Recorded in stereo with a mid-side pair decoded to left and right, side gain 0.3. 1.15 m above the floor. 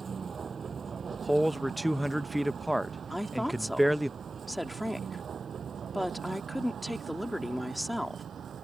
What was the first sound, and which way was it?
A vehicle, 60° right.